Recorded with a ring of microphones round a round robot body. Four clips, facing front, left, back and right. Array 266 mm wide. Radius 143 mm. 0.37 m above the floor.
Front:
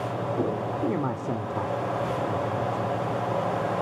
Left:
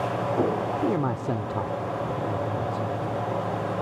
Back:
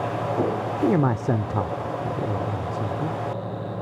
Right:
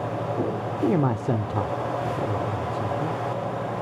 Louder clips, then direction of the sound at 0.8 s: Right 7 dB, back 9 dB; 150° right.